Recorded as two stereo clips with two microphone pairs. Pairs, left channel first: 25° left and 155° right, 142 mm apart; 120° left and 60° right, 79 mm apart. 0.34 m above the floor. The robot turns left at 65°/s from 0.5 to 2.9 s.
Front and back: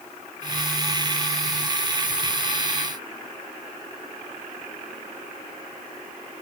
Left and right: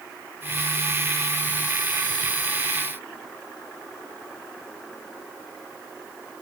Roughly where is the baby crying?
No baby crying in this recording.